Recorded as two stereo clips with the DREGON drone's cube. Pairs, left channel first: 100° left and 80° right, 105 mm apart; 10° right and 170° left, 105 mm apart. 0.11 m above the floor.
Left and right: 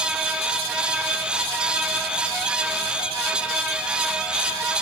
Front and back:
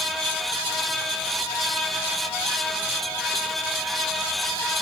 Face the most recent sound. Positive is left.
No sound to turn to.